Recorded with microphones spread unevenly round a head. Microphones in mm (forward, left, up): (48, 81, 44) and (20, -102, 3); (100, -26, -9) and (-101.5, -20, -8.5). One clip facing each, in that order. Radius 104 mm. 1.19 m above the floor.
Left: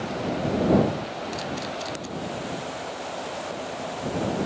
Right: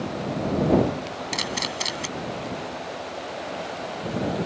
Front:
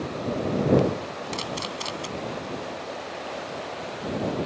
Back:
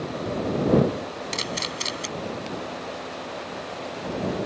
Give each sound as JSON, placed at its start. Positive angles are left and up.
{"t": 1.3, "sound": "a camera shutter", "azimuth_deg": -115}